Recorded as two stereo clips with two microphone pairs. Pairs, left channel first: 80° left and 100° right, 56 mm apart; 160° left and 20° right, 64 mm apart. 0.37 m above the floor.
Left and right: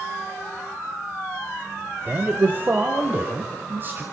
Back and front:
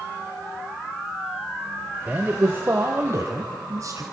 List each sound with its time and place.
2.1 s a man speaking: 70° right, 1.2 m; by 4.0 s 50° right, 2.5 m